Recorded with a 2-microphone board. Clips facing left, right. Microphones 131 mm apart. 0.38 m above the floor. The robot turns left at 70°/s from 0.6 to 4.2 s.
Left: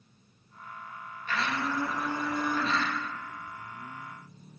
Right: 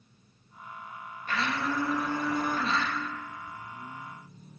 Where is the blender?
45° right, 0.9 m; by 2.9 s 160° right, 0.9 m.